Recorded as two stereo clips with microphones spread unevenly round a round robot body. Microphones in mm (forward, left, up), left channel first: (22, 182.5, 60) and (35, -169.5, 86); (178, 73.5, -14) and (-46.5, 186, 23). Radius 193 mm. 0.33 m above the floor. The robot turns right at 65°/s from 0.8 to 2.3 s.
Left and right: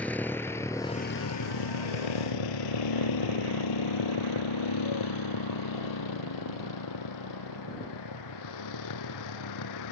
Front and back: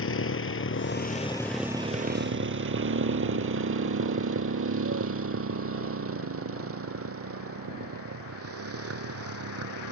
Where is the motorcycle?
5° left; by 9.9 s 130° left.